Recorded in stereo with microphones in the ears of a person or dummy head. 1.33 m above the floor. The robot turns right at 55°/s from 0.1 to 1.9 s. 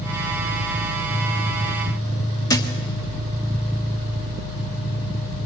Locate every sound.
2.5 s a thud: 15° left (ahead or behind), 1.0 m